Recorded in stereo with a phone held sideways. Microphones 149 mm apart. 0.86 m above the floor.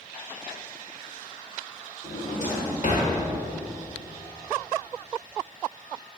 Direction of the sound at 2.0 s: 55° left (ahead or behind).